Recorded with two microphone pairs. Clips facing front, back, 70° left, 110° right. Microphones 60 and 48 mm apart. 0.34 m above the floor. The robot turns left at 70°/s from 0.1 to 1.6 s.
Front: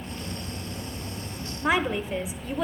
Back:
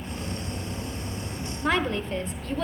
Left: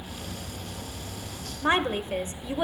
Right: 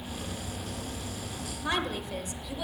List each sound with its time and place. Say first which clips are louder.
1.6 s a woman speaking: front 1 dB, left 7 dB; 65° left, 1.0 m